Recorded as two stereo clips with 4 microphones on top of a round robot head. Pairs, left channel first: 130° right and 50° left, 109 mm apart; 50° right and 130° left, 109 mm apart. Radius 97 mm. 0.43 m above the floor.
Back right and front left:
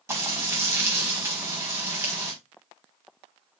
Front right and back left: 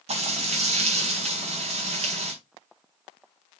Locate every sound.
0.1 s frying: 115° left, 5 m